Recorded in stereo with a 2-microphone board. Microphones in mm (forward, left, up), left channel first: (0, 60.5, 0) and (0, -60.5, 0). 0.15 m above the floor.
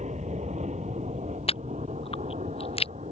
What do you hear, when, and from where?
0.0 s an aircraft: 65° right (ahead or behind)
1.5 s chewing: 50° left (ahead or behind)